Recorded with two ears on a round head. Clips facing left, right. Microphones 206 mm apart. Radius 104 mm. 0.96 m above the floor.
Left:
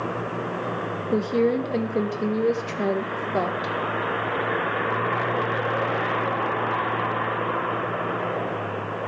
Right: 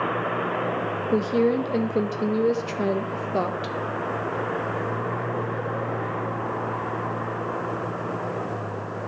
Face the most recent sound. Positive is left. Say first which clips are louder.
# even
turn(degrees=0)  # may be behind; listen again after turning